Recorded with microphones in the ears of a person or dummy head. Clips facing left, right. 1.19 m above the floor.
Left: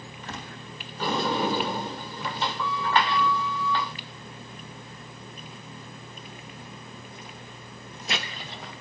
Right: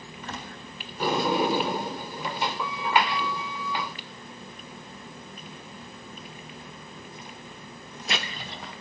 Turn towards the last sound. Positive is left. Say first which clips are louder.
# right 2 dB
turn(degrees=-10)  # may be behind; listen again after turning